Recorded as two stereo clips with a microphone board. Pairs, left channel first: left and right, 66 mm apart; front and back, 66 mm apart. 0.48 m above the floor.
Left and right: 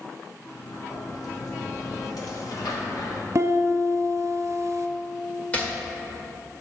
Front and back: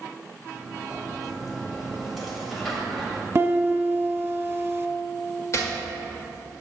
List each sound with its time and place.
0.4 s a sliding door: 90° left, 1.4 m
3.4 s a piano: 125° right, 0.8 m
5.5 s chopping: 25° left, 1.5 m